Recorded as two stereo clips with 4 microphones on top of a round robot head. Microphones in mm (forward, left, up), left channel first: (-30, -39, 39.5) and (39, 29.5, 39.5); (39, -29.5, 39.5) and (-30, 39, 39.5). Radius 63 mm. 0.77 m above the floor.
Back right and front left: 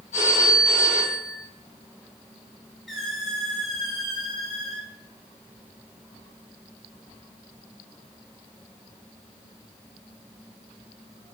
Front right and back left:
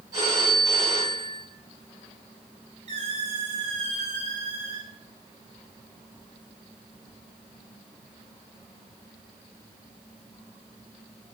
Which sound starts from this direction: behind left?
A squeak, at 2.9 s.